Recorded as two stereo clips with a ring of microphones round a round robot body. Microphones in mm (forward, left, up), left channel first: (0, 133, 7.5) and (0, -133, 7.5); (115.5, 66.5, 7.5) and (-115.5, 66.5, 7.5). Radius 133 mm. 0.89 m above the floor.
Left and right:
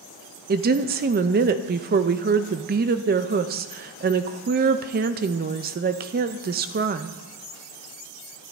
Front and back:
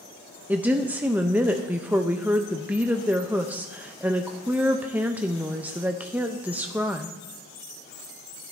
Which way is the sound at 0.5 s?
105° right.